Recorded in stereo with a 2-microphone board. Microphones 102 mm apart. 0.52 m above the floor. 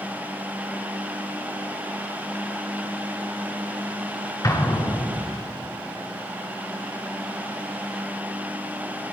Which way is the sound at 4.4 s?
35° left (ahead or behind).